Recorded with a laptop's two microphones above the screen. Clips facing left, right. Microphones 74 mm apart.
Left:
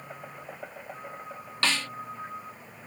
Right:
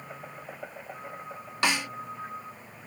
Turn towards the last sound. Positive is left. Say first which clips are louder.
# right 2 dB
turn(degrees=-15)  # may be behind; listen again after turning